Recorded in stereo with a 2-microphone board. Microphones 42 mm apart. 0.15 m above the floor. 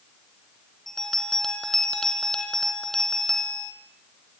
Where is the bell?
10° left (ahead or behind), 3 m.